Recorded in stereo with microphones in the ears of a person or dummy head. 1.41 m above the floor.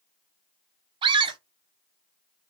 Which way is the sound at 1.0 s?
25° right (ahead or behind).